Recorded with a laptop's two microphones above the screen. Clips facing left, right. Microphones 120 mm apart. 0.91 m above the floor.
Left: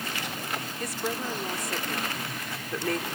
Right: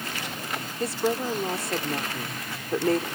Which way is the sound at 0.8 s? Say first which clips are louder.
Right 8 dB; 30° right (ahead or behind).